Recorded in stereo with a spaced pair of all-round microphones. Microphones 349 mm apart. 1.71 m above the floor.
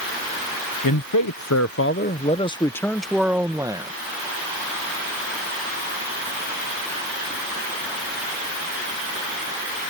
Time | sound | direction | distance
0.8 | a man speaking | 70° left (ahead or behind) | ?